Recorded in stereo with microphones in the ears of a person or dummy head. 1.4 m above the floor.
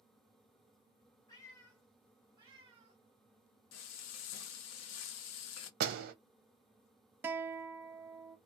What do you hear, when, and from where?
1.3 s a cat meowing: 25° left (ahead or behind), 1.4 m; by 3.0 s 40° right (ahead or behind), 1.9 m
3.7 s frying: 80° left, 0.8 m
5.8 s a door slam: 60° right (ahead or behind), 0.8 m
7.2 s a guitar: 10° right (ahead or behind), 0.6 m